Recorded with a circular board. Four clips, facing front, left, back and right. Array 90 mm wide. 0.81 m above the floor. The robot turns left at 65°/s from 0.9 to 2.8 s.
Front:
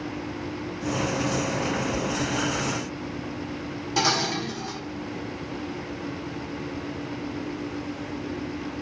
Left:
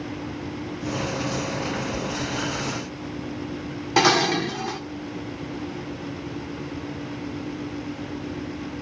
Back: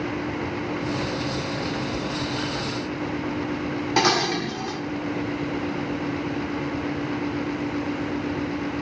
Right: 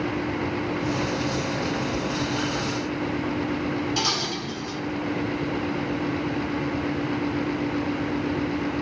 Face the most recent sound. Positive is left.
turn(degrees=120)